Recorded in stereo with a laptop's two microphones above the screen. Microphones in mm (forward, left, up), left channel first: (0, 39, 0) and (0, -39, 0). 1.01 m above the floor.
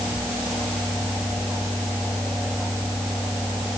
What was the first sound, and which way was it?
Only background noise.